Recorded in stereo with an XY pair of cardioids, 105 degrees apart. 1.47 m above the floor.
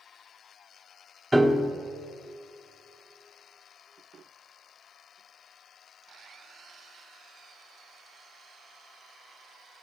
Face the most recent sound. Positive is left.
turn(degrees=-10)